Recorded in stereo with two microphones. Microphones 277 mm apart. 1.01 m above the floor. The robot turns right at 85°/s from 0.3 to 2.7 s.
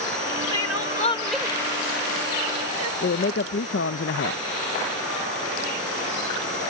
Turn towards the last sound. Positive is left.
turn(degrees=50)  # may be behind; listen again after turning